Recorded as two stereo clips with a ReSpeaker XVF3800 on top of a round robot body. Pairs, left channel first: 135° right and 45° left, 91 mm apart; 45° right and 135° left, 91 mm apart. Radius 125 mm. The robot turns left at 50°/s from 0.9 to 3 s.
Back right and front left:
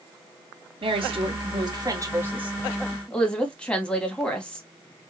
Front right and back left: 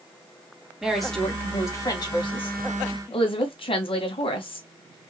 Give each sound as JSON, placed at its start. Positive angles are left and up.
{"t": 0.8, "sound": "a woman speaking", "azimuth_deg": 50, "distance_m": 2.5}